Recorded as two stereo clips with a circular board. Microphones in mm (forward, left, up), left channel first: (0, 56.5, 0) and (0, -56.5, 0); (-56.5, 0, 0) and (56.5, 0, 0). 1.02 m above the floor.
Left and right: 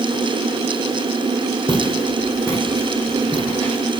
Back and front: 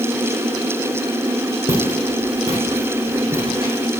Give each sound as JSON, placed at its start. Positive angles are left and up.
{"t": 1.7, "sound": "footsteps", "azimuth_deg": 25, "distance_m": 3.0}